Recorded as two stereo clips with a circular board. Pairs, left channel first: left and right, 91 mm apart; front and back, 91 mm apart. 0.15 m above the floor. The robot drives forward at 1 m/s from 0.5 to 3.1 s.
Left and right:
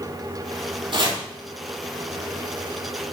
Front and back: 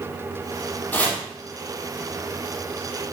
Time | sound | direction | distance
0.9 | chopping | 70° right | 4.5 m